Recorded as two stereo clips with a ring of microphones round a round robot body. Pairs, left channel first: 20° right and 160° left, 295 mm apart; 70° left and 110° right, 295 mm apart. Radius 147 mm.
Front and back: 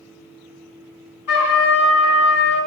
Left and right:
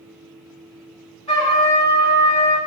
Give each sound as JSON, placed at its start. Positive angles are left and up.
{"t": 1.3, "sound": "a trumpet", "azimuth_deg": 0, "distance_m": 2.0}